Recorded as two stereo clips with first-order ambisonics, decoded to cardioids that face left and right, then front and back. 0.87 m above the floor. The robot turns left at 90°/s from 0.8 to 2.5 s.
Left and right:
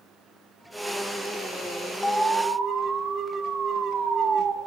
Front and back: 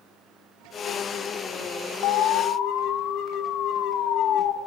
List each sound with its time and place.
2.0 s an alarm: 10° left, 0.6 m; by 4.5 s 35° right, 0.6 m